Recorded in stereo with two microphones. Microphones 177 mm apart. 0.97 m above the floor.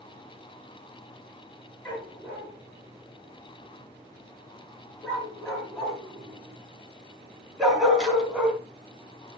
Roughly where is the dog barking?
Centre.